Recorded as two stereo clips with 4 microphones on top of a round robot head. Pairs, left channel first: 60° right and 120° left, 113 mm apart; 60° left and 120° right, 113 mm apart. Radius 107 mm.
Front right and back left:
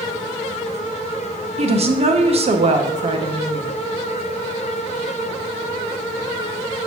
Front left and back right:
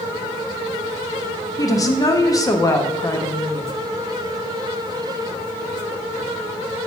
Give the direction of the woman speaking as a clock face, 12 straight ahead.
8 o'clock.